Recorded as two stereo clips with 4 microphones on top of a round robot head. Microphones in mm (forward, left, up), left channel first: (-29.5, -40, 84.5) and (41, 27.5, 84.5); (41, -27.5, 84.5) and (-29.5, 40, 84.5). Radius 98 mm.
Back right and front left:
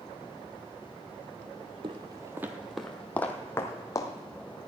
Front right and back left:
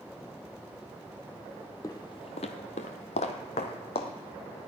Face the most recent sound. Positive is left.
turn(degrees=-75)